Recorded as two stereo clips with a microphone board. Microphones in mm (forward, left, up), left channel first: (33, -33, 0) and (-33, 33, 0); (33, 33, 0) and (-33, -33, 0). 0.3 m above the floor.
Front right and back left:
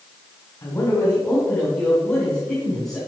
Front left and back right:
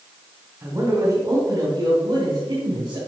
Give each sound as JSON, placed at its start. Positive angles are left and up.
{"t": 0.6, "sound": "a man speaking", "azimuth_deg": -90, "distance_m": 2.5}